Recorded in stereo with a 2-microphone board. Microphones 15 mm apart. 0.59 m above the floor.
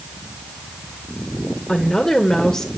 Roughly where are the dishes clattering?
No dishes clattering in this recording.